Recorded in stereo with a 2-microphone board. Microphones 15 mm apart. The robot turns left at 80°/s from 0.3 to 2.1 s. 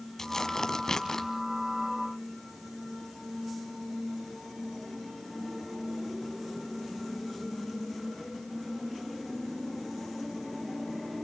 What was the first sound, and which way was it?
Tearing paper, 130° left.